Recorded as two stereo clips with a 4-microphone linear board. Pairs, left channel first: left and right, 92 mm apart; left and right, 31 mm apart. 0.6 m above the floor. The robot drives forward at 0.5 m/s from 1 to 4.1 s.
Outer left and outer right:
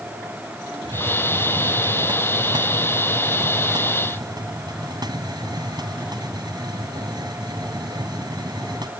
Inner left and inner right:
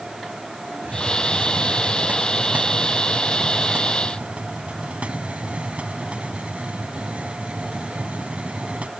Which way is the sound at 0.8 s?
65° right (ahead or behind).